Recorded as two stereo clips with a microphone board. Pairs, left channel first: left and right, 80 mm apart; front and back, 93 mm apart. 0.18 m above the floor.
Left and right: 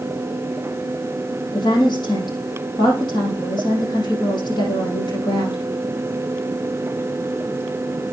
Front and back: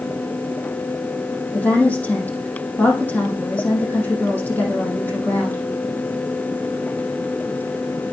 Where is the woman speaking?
70° left, 6 m.